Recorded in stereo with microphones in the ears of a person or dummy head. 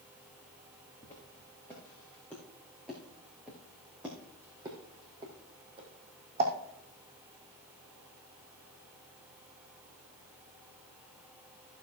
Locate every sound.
1.0 s footsteps: 15° left (ahead or behind), 4.5 m; by 6.5 s 40° right (ahead or behind), 3 m